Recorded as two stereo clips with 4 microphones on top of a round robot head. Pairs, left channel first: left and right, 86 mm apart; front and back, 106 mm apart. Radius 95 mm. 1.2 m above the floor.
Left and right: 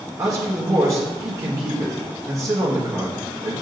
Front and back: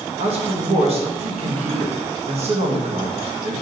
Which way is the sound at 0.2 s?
145° right.